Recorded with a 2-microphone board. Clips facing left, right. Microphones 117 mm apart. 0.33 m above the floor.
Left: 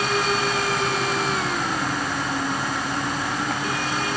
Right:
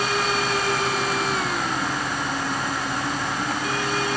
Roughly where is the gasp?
No gasp in this recording.